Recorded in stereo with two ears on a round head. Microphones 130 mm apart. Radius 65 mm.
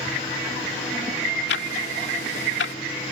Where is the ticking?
85° left.